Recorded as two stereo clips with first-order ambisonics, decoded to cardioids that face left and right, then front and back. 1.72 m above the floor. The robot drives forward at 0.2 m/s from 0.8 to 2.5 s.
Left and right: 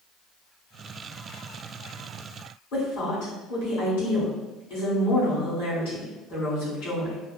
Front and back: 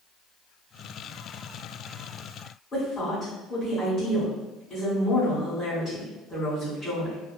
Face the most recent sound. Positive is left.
turn(degrees=75)